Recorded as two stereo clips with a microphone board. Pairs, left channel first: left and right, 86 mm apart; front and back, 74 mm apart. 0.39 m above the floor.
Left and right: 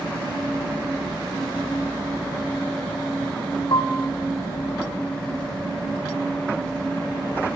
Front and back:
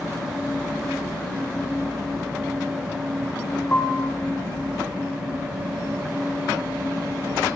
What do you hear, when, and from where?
3.7 s a piano: 55° left, 8.5 m